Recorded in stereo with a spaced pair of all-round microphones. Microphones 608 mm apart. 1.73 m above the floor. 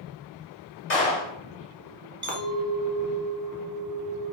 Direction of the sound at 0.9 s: 50° left (ahead or behind).